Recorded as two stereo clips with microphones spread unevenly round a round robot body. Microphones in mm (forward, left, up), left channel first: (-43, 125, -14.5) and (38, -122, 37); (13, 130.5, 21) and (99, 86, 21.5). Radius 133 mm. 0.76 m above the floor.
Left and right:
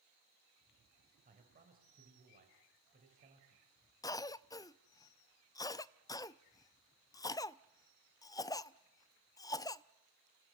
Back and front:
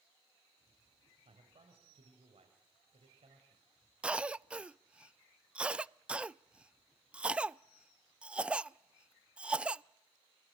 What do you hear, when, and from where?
1.2 s a man speaking: 10° right, 4 m
4.0 s a cough: 50° left, 0.5 m